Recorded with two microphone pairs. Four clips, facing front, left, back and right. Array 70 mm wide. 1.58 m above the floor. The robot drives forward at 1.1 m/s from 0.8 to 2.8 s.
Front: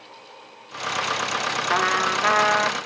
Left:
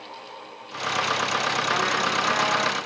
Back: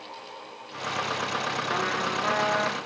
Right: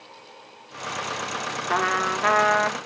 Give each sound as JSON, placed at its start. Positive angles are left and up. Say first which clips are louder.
{"t": 1.7, "sound": "a trumpet", "louder": "right 4 dB, front 8 dB", "azimuth_deg": -30, "distance_m": 2.0}